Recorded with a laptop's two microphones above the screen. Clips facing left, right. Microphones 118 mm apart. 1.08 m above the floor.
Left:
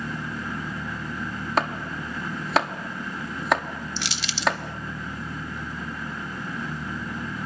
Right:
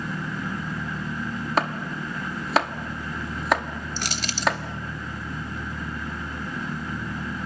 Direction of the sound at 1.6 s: Centre (ahead or behind).